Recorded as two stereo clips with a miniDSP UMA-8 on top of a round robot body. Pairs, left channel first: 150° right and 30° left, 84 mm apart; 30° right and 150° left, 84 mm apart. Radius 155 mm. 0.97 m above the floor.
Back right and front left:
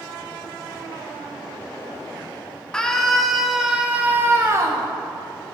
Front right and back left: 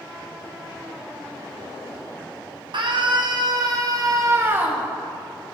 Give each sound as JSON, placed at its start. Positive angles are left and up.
{"t": 2.7, "sound": "a scream", "azimuth_deg": 130, "distance_m": 2.5}